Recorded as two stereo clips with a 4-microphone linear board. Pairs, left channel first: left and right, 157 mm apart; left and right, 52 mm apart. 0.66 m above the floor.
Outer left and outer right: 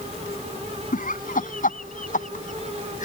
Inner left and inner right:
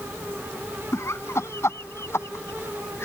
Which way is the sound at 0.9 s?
60° left (ahead or behind).